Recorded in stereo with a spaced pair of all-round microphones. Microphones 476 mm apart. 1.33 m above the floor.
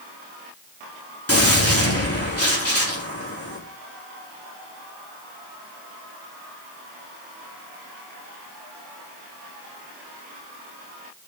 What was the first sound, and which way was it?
A gunshot, 30° left (ahead or behind).